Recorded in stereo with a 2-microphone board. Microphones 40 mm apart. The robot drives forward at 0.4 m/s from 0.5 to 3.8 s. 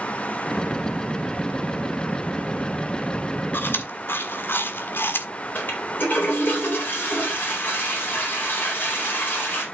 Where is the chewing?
60° left (ahead or behind), 1.6 m; by 5.3 s 65° left (ahead or behind), 1.5 m.